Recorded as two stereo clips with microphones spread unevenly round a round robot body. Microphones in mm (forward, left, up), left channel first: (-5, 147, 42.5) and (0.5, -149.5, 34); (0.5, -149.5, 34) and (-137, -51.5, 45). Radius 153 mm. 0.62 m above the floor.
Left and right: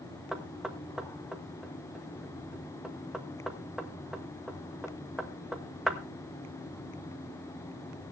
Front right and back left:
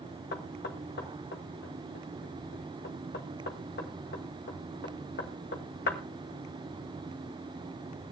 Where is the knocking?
Straight ahead, 1.9 m.